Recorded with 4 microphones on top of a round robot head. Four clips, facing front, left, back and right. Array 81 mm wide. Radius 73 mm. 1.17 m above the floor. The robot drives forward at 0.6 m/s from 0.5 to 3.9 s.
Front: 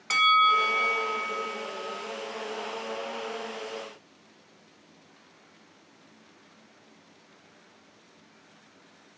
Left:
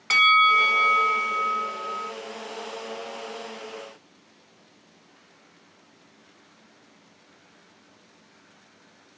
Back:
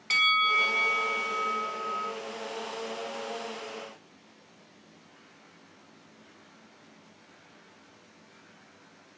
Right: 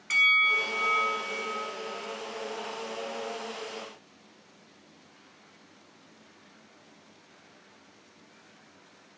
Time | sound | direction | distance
0.1 | a bell | 65° left | 0.9 m